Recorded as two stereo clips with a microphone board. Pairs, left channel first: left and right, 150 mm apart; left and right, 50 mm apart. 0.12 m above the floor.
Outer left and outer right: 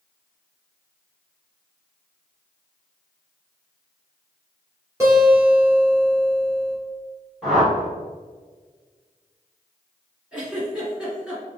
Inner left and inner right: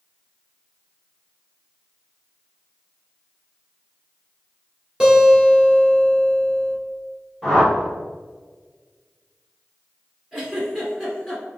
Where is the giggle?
5° right (ahead or behind), 1.7 m.